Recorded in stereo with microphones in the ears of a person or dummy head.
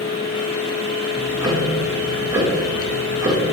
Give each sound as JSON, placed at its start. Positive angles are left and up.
{"t": 0.0, "sound": "a fan", "side_deg": 75, "distance_m": 1.5}
{"t": 1.1, "sound": "ticking", "side_deg": -20, "distance_m": 1.6}